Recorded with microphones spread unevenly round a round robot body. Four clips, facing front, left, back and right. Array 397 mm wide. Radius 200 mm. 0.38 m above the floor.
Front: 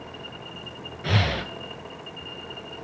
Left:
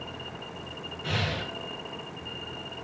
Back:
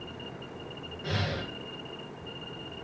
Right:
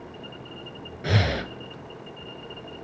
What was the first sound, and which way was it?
Breathing, 40° right.